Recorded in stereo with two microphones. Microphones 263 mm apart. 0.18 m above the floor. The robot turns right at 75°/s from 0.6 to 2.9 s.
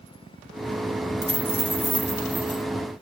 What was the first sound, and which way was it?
A dropped coin, 65° right.